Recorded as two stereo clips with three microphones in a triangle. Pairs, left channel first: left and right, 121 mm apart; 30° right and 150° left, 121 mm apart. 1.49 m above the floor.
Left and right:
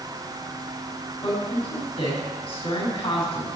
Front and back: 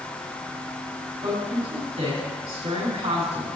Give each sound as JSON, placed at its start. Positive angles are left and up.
{"t": 1.2, "sound": "a woman speaking", "azimuth_deg": 120, "distance_m": 4.5}